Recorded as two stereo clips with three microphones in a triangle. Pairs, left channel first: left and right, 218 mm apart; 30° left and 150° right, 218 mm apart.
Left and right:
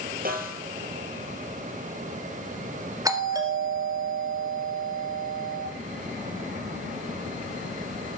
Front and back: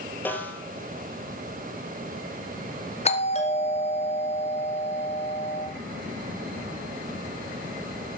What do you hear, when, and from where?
0.2 s a snare drum: 50° right, 3 m
3.0 s a doorbell: 20° right, 2.5 m